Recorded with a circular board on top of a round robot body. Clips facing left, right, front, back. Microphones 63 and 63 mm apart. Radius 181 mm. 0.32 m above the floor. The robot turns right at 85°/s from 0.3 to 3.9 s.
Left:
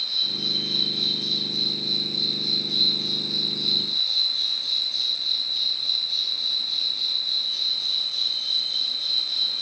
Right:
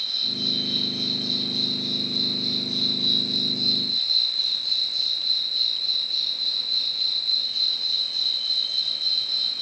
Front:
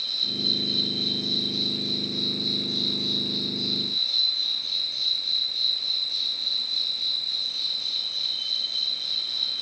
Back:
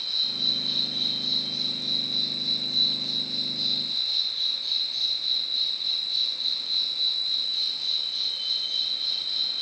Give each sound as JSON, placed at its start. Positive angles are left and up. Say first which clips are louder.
{"t": 0.0, "sound": "an insect", "louder": "right 1 dB, front 2 dB", "azimuth_deg": 135, "distance_m": 1.7}